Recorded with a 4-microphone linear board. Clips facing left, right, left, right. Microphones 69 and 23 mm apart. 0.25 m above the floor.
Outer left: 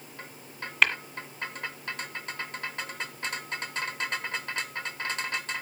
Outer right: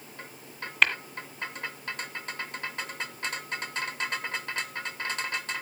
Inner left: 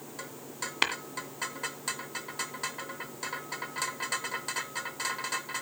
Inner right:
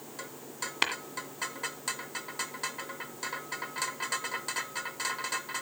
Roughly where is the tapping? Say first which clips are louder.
Even, inner left 1 dB; centre.